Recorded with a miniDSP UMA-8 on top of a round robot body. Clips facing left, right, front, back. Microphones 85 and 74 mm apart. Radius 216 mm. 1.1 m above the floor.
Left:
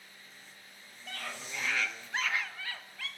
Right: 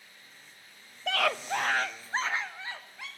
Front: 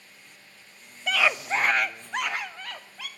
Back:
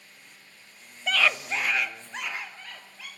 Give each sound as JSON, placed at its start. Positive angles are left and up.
{"t": 1.1, "sound": "a scream", "azimuth_deg": -95, "distance_m": 0.8}